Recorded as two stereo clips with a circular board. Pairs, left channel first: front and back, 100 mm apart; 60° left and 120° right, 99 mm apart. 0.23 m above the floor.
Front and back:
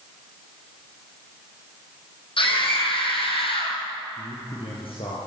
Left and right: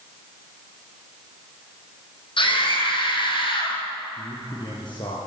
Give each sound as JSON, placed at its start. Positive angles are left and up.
{"t": 2.4, "sound": "a scream", "azimuth_deg": 25, "distance_m": 9.5}
{"t": 4.2, "sound": "a man speaking", "azimuth_deg": 20, "distance_m": 6.5}